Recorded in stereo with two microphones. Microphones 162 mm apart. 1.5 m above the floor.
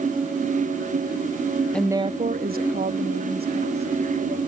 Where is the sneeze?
I don't hear a sneeze.